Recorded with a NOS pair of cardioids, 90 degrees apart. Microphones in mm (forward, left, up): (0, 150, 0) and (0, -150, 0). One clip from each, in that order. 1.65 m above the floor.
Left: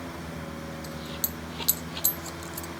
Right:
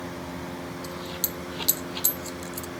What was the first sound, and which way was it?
A dropped coin, 10° right.